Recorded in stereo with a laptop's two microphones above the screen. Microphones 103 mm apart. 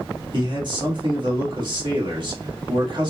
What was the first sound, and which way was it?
A man speaking, 50° right (ahead or behind).